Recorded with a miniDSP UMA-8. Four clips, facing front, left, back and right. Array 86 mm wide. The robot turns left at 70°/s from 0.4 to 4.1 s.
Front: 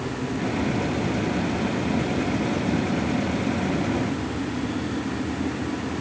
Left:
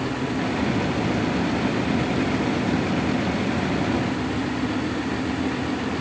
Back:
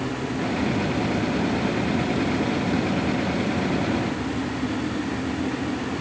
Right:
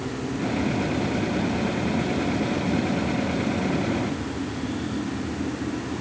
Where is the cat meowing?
No cat meowing in this recording.